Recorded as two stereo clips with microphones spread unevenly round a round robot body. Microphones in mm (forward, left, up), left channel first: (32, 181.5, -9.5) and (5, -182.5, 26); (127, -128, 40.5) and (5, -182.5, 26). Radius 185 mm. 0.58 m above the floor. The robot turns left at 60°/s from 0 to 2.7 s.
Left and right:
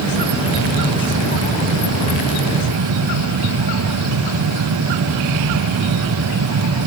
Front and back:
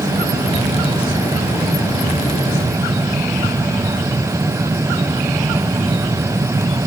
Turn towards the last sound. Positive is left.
No sound to turn to.